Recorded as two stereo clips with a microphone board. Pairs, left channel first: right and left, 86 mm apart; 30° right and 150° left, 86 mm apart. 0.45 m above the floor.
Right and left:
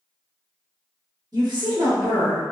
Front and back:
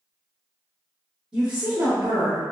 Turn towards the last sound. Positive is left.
turn(degrees=120)